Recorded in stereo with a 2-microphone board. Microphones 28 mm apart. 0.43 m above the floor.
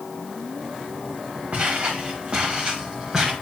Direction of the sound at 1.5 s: 45° right (ahead or behind).